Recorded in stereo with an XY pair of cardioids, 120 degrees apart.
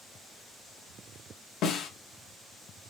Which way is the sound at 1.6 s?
60° left.